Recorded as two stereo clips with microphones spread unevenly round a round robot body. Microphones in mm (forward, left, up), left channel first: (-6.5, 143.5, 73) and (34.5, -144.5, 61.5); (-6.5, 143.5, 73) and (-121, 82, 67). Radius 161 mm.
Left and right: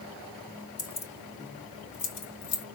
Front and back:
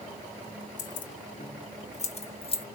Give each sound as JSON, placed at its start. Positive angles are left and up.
{"t": 0.8, "sound": "keys jangling", "azimuth_deg": 20, "distance_m": 1.2}